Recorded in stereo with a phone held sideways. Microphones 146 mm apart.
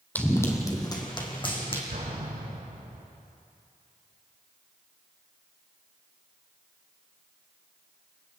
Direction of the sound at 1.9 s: 75° right (ahead or behind).